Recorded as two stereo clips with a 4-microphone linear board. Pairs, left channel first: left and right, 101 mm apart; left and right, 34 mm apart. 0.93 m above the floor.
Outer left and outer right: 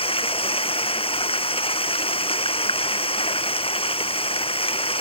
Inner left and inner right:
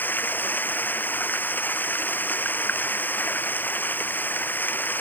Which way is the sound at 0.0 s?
65° left (ahead or behind).